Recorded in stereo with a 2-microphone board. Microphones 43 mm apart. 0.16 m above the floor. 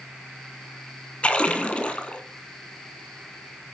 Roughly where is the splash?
Left.